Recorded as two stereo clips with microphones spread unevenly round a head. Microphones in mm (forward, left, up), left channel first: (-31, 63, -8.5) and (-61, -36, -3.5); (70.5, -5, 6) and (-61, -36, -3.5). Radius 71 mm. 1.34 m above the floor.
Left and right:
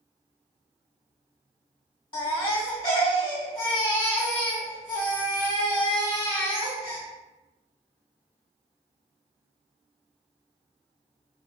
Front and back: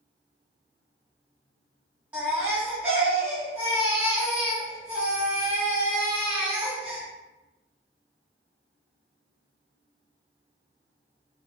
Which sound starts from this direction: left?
A baby crying, at 2.1 s.